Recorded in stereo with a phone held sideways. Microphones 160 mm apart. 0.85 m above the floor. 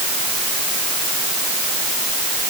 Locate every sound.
Only background noise.